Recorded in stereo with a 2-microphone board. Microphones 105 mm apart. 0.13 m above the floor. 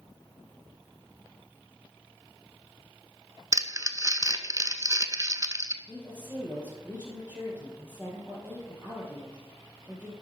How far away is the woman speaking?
About 3 m.